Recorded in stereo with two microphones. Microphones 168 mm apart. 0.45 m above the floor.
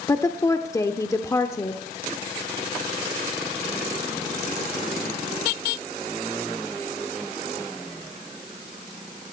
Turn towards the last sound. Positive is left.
turn(degrees=20)  # may be behind; listen again after turning